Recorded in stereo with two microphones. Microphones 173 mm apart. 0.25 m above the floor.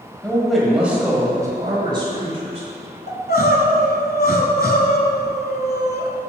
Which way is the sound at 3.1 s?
70° left (ahead or behind).